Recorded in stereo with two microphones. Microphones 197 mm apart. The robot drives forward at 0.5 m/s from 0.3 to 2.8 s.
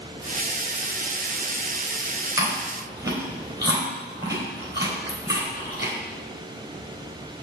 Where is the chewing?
20° right (ahead or behind), 3.5 m; by 5.9 s 15° right (ahead or behind), 4 m.